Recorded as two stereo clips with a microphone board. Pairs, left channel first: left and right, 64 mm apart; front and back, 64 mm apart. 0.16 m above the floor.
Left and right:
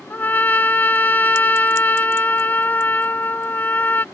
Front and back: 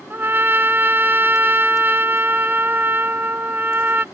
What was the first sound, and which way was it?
A trumpet, 140° left.